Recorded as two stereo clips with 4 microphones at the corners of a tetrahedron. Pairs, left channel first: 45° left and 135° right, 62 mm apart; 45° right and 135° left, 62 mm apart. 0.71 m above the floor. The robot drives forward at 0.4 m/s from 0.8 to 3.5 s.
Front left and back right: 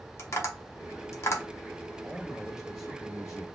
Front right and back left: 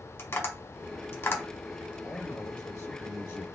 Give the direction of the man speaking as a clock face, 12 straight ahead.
2 o'clock.